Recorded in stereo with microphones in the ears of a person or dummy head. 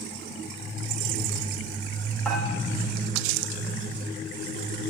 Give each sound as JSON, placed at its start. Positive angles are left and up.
{"t": 2.2, "sound": "dishes clattering", "side_deg": 0, "distance_m": 3.5}